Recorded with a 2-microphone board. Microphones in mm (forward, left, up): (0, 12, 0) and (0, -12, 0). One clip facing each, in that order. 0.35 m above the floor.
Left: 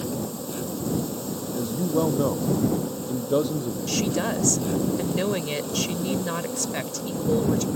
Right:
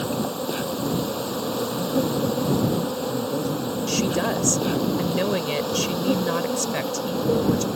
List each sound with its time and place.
0.0 s an insect: 45° right (ahead or behind)
1.5 s a man speaking: 80° left
3.9 s a woman speaking: 10° right (ahead or behind)